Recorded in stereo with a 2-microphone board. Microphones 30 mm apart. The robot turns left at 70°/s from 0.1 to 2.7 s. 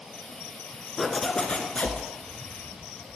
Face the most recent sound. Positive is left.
turn(degrees=60)